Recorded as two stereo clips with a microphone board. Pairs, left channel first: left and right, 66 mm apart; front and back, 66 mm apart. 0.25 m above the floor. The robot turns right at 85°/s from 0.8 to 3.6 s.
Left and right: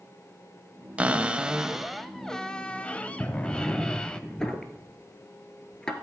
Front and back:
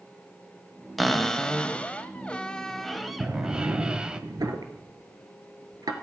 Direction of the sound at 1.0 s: 90° right.